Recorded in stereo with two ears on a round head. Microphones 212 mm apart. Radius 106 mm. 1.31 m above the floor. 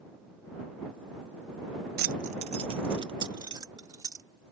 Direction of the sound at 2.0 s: 40° right (ahead or behind).